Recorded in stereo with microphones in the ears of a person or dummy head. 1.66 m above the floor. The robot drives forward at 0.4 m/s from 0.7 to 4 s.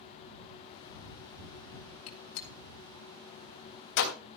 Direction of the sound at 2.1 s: 70° left (ahead or behind).